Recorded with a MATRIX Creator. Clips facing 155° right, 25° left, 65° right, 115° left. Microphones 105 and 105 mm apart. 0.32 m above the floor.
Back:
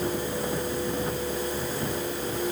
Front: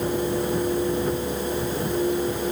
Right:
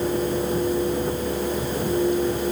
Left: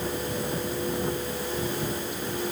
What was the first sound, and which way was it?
Only background noise.